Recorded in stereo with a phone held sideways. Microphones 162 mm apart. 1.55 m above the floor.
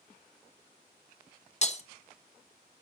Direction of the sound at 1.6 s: 45° left (ahead or behind).